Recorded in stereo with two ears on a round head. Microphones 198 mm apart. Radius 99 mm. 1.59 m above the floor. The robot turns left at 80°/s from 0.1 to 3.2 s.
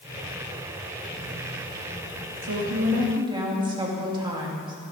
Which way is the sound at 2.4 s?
95° right.